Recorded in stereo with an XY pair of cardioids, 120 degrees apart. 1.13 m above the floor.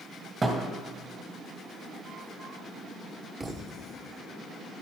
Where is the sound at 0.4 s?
25° right, 2.5 m.